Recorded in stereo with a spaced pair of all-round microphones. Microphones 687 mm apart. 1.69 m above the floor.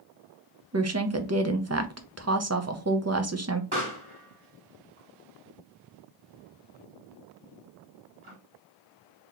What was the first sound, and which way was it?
A woman speaking, 25° right (ahead or behind).